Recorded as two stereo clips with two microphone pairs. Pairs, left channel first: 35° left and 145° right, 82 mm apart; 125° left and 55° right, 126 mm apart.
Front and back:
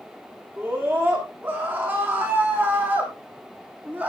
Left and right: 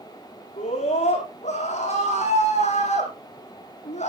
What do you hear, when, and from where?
0.6 s a scream: 150° left, 8.5 m; by 4.1 s 145° left, 6.5 m